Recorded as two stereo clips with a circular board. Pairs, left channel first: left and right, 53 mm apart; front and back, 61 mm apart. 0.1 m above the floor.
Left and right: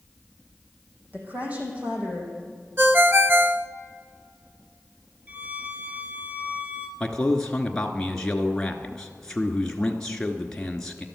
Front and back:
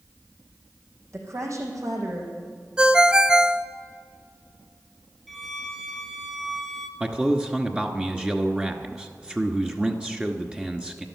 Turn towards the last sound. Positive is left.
turn(degrees=145)